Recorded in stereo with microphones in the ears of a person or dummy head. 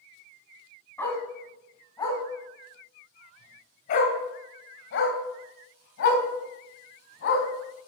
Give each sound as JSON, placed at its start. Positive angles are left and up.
{"t": 1.0, "sound": "a dog barking", "side_deg": 15, "distance_m": 3.0}